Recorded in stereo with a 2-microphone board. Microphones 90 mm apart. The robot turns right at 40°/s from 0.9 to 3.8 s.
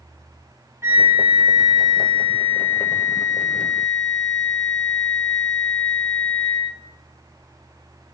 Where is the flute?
35° right, 3.5 m; by 6.7 s 80° left, 3.5 m.